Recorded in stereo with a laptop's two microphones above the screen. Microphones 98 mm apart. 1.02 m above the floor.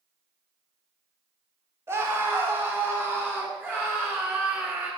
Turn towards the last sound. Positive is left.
turn(degrees=-20)  # may be behind; listen again after turning